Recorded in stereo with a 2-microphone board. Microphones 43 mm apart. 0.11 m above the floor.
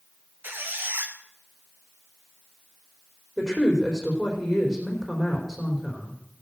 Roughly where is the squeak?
Right.